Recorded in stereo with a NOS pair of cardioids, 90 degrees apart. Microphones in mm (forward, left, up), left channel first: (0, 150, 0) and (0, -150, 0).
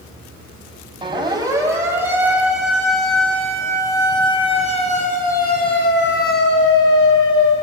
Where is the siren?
15° right, 7 m; by 7.5 s 60° left, 5 m.